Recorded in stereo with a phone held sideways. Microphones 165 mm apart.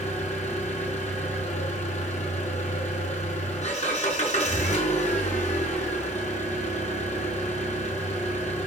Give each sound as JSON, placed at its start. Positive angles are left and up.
{"t": 0.0, "sound": "an engine running", "side_deg": 50, "distance_m": 5.5}